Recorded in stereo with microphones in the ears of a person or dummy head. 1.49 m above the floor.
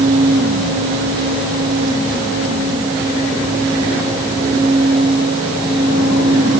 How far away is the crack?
No crack in this recording.